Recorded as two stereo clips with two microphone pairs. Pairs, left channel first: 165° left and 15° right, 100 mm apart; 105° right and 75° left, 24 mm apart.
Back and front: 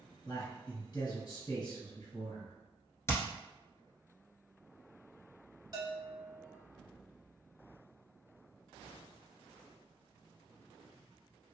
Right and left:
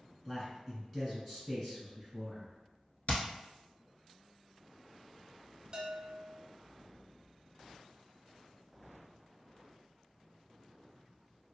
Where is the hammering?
140° right, 0.9 m.